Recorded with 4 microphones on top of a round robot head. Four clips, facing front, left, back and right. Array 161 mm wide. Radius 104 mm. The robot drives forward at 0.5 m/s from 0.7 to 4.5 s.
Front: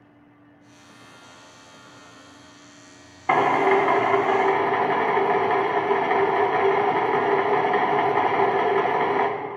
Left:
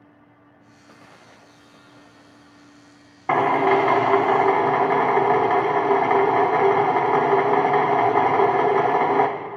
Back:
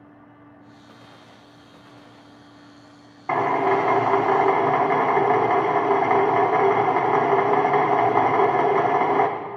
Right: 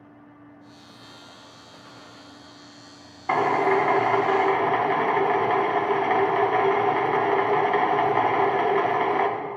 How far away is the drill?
About 0.8 m.